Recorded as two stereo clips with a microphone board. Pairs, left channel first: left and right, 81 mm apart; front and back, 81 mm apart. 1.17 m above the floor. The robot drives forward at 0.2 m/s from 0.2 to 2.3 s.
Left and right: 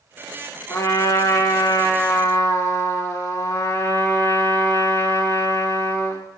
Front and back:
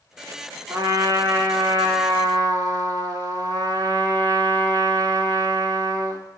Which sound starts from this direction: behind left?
A trumpet, at 0.7 s.